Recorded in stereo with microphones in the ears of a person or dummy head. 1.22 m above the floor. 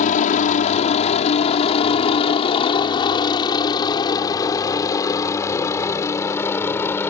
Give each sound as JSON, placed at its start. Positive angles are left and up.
{"t": 0.0, "sound": "a helicopter", "side_deg": 40}